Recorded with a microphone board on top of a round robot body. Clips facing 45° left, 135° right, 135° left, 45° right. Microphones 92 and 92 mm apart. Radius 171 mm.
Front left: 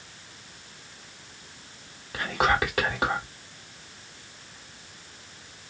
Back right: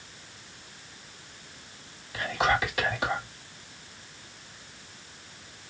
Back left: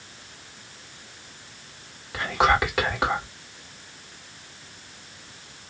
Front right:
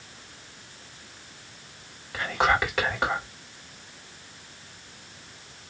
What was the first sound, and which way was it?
Whispering, 50° left.